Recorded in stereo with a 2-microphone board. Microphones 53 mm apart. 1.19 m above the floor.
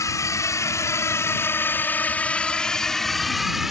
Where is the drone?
75° left (ahead or behind); by 3.7 s 5° right (ahead or behind).